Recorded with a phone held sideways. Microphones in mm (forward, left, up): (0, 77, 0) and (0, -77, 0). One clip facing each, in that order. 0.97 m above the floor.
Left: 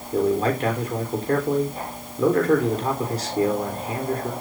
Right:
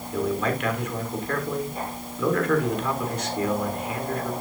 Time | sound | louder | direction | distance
0.1 | a man speaking | left 5 dB | 30° left (ahead or behind) | 3.5 m